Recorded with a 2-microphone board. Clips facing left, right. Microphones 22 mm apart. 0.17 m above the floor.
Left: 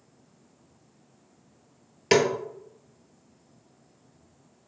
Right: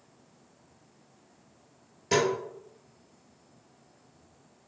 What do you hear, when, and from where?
2.1 s a snare drum: 70° left (ahead or behind), 0.9 m